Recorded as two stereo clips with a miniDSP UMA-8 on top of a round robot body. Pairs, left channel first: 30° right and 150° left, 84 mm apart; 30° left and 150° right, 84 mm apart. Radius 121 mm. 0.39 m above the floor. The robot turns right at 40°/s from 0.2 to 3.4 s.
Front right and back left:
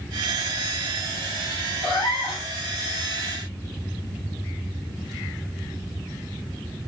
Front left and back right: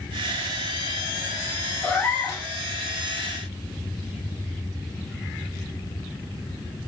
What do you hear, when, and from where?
1.8 s a cat meowing: 45° right, 1.3 m; by 2.5 s 20° right, 1.3 m